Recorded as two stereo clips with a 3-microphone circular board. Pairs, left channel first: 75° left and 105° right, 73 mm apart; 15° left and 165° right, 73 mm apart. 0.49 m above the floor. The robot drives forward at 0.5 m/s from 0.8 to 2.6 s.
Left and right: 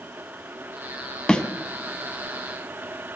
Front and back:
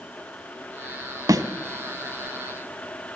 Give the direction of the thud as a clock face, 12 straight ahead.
7 o'clock.